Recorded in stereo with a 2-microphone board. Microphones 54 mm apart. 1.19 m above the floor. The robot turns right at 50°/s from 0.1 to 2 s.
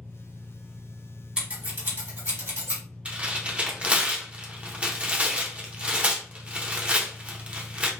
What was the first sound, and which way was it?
An engine running, 10° left.